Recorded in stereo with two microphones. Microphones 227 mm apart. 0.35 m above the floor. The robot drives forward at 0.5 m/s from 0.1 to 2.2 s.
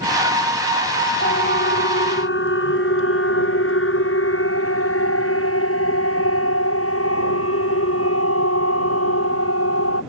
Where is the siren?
55° left (ahead or behind); by 10.0 s 85° left.